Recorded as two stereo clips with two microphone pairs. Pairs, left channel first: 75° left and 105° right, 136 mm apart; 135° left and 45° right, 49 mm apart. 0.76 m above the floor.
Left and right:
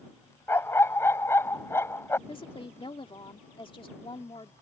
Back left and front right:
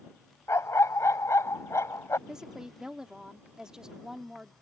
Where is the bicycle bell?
No bicycle bell in this recording.